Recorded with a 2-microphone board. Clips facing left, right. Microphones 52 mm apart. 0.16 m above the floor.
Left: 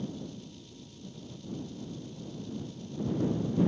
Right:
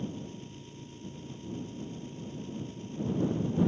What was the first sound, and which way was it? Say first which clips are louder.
An engine running: even; 40° right (ahead or behind).